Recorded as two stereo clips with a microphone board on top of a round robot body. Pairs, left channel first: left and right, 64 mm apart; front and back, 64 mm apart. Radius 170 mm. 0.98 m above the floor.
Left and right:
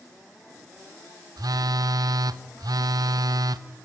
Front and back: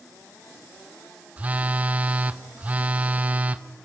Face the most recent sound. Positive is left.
turn(degrees=-110)